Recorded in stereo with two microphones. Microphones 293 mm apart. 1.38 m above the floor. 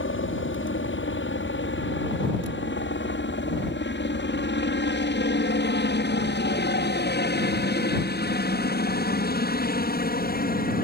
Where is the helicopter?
45° left (ahead or behind); by 10.8 s 30° left (ahead or behind).